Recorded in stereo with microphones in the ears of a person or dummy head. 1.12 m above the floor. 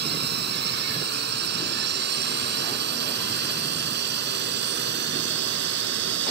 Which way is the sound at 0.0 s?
55° right (ahead or behind).